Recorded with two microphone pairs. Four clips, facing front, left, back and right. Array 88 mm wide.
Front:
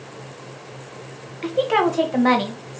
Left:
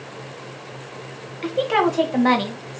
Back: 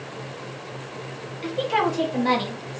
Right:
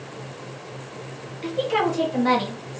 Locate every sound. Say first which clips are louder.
1.4 s a woman speaking: left 3 dB, front 4 dB; 40° left, 1.0 m